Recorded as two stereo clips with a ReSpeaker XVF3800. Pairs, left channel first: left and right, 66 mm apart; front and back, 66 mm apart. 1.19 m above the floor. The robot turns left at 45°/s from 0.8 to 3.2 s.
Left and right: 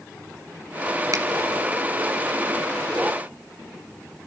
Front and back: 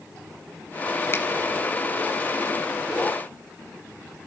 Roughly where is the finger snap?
Ahead right.